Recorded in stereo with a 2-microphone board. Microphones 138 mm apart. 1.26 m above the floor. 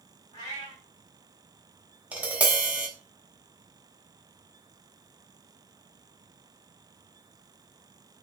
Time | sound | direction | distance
0.3 | a cat meowing | 35° right (ahead or behind) | 2.5 m
2.1 | tapping | 10° right (ahead or behind) | 0.8 m